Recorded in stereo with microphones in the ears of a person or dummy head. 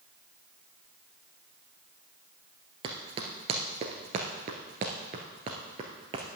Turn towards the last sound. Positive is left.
turn(degrees=-20)  # may be behind; listen again after turning